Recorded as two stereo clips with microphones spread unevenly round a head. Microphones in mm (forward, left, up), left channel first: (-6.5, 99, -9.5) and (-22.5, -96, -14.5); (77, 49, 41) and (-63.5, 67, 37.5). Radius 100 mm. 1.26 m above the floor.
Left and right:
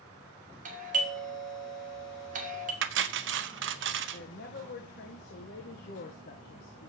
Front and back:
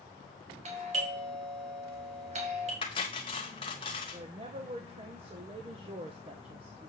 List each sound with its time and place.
0.7 s a doorbell: 145° right, 2 m
2.8 s cutlery clinking: 70° right, 0.7 m
4.1 s a woman speaking: 125° left, 1.2 m